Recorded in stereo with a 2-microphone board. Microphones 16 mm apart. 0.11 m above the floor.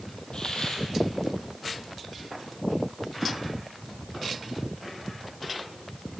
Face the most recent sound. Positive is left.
turn(degrees=60)  # may be behind; listen again after turning